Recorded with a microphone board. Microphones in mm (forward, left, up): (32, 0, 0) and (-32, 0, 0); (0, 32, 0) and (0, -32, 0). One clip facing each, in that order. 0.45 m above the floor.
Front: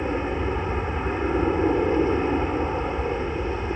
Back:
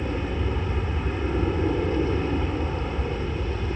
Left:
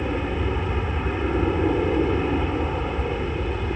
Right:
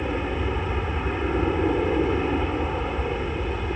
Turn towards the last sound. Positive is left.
turn(degrees=-5)